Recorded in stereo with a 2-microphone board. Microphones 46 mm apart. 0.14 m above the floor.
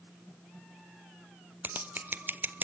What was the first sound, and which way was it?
Scissors, 40° right (ahead or behind).